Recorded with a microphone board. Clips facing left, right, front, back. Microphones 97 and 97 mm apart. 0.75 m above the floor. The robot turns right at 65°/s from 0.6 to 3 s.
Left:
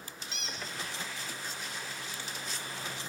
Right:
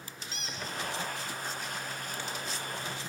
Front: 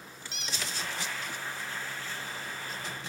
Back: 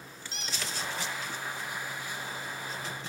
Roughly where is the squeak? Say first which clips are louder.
Right 1 dB, even; behind right.